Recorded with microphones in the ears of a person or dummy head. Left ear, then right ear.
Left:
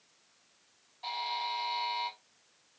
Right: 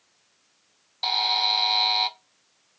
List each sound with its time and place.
1.0 s a buzzer: 60° right (ahead or behind), 0.7 m